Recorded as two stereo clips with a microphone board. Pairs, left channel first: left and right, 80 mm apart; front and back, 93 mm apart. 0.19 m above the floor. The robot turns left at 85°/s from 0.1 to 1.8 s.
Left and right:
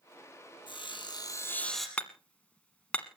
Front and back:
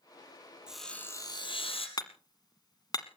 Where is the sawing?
100° left, 3 m; by 1.9 s 5° left, 3 m.